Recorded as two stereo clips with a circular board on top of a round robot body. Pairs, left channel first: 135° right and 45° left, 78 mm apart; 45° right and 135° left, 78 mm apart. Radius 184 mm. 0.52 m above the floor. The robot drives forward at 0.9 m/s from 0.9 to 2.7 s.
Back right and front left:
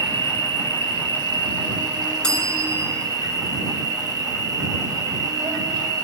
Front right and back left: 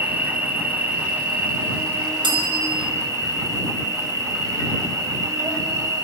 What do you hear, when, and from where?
0.0 s an insect: 70° left, 5 m; by 6.0 s 85° left, 5 m
2.2 s a bell: 145° left, 4 m; by 2.9 s 150° left, 4.5 m